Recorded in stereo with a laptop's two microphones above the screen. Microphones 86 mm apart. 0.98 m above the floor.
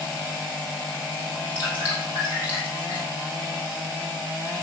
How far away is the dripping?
About 5 m.